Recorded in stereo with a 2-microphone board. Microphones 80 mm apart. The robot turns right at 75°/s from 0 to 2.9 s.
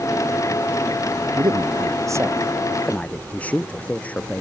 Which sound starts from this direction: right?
A man speaking, at 1.4 s.